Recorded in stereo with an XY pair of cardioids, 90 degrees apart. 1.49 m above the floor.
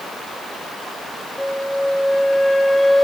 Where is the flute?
10° left, 2.5 m.